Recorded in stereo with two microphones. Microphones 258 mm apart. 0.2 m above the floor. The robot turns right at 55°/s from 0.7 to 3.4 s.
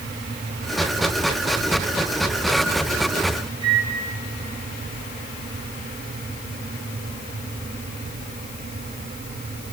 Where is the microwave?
25° left (ahead or behind), 5 m.